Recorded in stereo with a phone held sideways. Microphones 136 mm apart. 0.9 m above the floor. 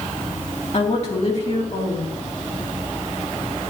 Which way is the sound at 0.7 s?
55° left (ahead or behind).